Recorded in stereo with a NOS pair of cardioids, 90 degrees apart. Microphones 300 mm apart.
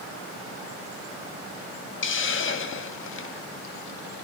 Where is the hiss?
40° left, 1.7 m.